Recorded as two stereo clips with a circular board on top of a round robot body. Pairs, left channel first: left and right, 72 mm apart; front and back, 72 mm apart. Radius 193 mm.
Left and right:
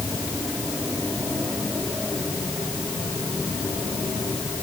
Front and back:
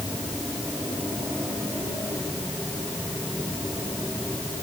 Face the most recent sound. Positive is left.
No sound to turn to.